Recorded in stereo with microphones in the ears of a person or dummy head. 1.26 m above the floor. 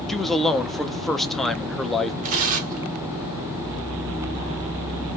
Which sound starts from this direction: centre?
A man speaking, at 0.1 s.